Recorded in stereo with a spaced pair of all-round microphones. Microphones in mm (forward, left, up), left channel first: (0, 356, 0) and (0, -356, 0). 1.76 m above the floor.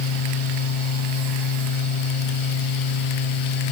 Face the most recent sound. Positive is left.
turn(degrees=40)  # may be behind; listen again after turning